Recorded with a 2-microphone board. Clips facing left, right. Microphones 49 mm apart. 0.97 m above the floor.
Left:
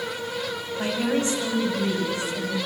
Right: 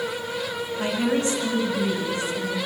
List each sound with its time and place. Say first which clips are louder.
0.8 s a woman speaking: right 1 dB; 30° left (ahead or behind), 6 m; by 2.6 s 20° left (ahead or behind), 4.5 m